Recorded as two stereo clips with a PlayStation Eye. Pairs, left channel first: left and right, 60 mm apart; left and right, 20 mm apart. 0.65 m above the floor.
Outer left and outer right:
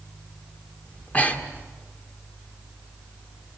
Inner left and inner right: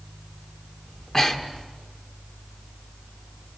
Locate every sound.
0.9 s breathing: 25° left (ahead or behind), 1.7 m